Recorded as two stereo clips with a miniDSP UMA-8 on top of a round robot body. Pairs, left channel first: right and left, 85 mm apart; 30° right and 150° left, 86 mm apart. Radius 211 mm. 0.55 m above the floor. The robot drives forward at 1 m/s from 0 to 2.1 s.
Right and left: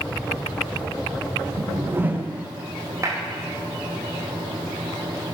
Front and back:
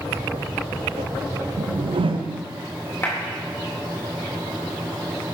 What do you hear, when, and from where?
1.6 s a whoosh: 135° left, 0.5 m; by 2.5 s 160° left, 0.9 m
3.0 s a clap: 35° left, 3.5 m